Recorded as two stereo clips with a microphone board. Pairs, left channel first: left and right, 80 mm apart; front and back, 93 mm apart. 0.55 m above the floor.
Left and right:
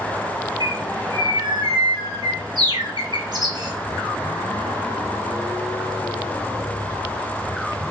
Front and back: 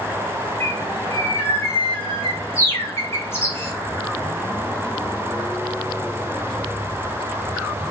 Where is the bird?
60° right, 1.7 m.